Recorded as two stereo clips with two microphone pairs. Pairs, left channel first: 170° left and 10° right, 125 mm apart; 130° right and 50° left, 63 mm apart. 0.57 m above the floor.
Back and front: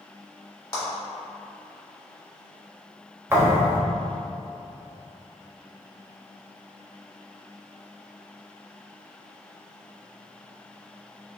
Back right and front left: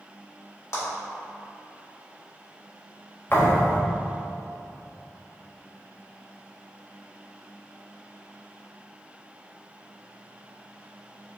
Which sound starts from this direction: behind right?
A clap, at 0.7 s.